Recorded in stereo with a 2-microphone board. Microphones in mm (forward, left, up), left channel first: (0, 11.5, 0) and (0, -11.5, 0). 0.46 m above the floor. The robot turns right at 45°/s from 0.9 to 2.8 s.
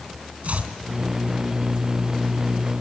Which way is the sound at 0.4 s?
75° right (ahead or behind).